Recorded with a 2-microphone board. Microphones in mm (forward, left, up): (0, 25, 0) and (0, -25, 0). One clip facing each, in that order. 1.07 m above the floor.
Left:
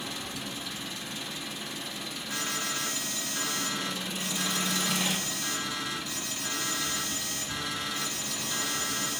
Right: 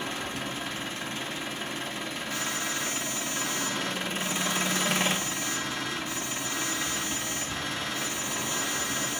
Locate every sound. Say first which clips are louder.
0.0 s an engine running: right 4 dB; 40° right (ahead or behind), 0.9 m
2.3 s an alarm: even; 10° left (ahead or behind), 6 m